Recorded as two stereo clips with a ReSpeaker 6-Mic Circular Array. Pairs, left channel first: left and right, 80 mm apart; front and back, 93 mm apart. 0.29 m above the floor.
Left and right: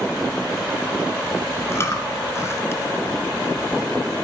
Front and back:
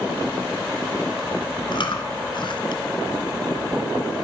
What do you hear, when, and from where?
1.7 s chewing: 30° left, 1.2 m